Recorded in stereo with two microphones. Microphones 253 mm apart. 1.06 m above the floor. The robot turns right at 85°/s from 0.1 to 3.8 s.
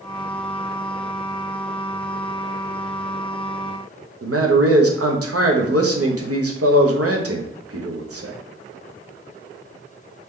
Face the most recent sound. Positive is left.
turn(degrees=-70)  # may be behind; listen again after turning